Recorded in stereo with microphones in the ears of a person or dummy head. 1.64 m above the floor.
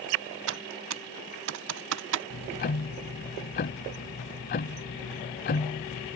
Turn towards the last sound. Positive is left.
turn(degrees=35)  # may be behind; listen again after turning